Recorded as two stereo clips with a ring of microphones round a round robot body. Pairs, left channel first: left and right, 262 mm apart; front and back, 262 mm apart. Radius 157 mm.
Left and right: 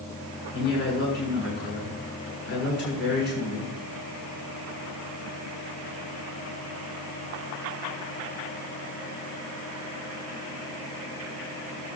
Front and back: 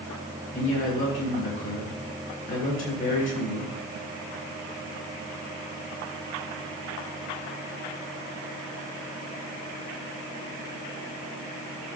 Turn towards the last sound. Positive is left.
turn(degrees=40)